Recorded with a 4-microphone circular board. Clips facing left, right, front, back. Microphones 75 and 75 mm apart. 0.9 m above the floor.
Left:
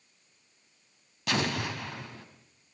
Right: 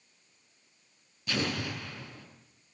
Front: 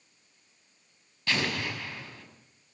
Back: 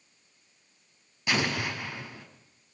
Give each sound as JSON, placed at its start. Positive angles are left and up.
{"t": 1.3, "sound": "an explosion", "azimuth_deg": 105, "distance_m": 5.0}